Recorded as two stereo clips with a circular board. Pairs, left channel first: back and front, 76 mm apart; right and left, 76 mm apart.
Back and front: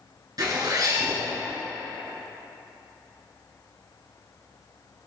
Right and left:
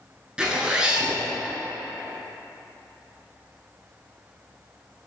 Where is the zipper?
15° left, 1.4 m.